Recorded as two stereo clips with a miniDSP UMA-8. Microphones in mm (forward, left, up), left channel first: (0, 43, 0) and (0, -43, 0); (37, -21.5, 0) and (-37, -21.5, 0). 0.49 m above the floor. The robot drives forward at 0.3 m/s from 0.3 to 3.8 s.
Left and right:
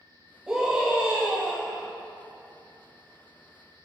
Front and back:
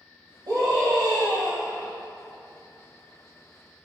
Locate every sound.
0.5 s a scream: 175° right, 2.5 m